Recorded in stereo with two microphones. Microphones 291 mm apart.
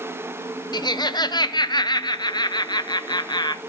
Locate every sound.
0.7 s laughter: 15° left (ahead or behind), 0.7 m